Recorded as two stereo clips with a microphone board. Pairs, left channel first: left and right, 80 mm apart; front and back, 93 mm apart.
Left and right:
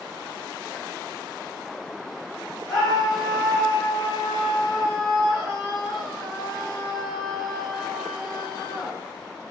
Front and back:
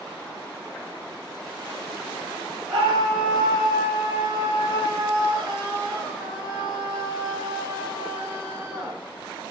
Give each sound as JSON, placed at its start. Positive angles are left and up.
{"t": 2.7, "sound": "a scream", "azimuth_deg": 130, "distance_m": 7.0}